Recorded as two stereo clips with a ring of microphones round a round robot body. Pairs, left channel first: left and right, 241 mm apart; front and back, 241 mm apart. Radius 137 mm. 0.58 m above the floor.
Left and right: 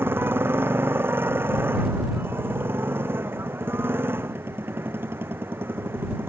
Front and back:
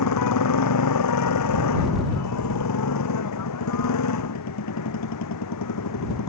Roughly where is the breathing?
I don't hear breathing.